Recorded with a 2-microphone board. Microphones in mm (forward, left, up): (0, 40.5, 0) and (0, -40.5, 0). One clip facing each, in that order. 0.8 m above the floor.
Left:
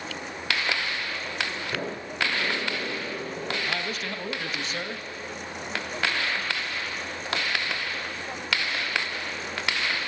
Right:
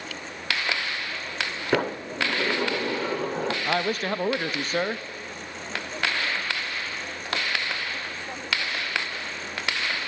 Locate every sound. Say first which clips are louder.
1.7 s a sliding door: right 11 dB; 80° right, 1.3 m
3.6 s a man speaking: right 6 dB; 40° right (ahead or behind), 0.6 m